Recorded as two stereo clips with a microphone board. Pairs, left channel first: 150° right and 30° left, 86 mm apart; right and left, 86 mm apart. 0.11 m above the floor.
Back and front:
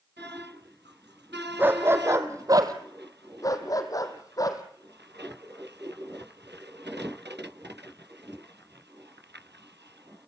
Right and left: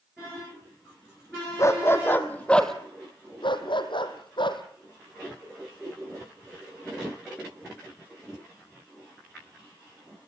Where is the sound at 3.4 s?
105° right, 1.6 m.